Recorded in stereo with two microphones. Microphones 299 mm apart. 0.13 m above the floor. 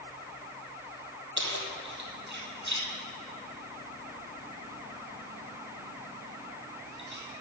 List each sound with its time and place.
1.4 s keys jangling: 65° right (ahead or behind), 3 m